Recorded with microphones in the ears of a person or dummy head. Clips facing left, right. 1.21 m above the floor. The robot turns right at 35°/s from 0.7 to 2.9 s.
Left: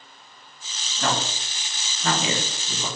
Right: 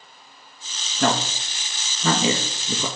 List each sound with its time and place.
1.0 s a man speaking: 50° right (ahead or behind), 1.3 m; by 2.9 s 65° right (ahead or behind), 1.3 m